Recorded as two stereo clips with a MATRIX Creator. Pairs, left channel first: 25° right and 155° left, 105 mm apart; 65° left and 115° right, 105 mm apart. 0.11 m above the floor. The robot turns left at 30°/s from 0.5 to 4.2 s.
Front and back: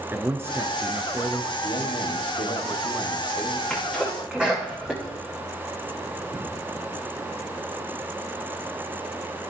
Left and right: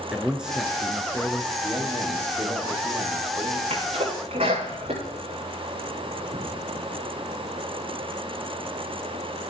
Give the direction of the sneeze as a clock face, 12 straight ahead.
4 o'clock.